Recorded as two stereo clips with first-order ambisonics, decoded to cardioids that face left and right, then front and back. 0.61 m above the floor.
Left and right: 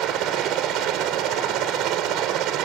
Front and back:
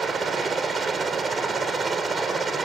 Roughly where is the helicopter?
Right.